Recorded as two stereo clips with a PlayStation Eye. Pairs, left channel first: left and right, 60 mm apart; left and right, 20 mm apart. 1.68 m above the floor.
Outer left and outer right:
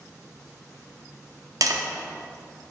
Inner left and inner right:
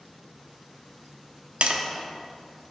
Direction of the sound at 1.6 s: 70° right (ahead or behind).